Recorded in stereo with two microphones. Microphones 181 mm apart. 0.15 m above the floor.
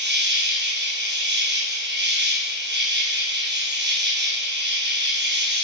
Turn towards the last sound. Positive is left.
turn(degrees=-70)  # may be behind; listen again after turning